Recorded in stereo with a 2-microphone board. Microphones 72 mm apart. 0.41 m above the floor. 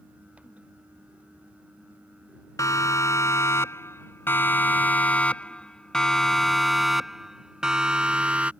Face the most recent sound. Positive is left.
turn(degrees=-20)  # may be behind; listen again after turning